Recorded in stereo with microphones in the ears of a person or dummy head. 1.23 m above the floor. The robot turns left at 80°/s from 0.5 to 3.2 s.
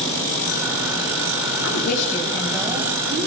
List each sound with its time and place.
1.6 s a woman speaking: 80° left, 6.5 m; by 3.3 s 50° right, 6.5 m